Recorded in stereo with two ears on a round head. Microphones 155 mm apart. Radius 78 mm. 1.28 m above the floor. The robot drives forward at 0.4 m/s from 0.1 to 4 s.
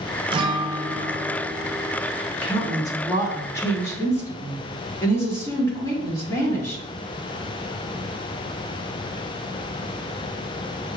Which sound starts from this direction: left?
A woman speaking, at 2.4 s.